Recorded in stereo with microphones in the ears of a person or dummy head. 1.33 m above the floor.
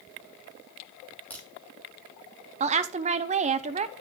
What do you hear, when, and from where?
1.3 s a crack: 15° left (ahead or behind), 2.5 m
2.6 s a woman speaking: 25° right (ahead or behind), 0.5 m